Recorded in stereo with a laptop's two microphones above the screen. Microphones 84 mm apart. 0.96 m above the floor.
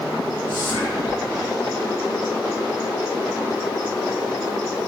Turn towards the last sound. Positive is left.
turn(degrees=60)  # may be behind; listen again after turning